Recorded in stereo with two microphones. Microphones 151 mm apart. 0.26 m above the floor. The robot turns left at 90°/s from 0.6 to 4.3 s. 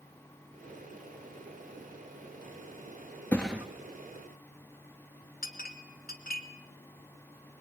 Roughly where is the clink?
Left.